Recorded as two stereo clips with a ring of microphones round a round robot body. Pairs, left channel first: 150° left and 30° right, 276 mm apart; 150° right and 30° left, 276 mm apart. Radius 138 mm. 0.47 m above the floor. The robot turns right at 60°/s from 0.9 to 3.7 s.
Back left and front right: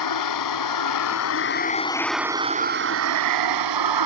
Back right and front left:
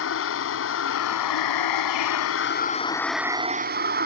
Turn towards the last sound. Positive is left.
turn(degrees=-25)